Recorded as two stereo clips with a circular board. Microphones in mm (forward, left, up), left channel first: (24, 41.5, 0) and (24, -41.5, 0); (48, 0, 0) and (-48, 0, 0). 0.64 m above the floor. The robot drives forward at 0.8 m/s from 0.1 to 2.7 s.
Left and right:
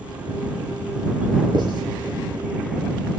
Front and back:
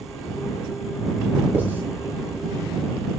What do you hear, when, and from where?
1.5 s writing: 110° right, 7 m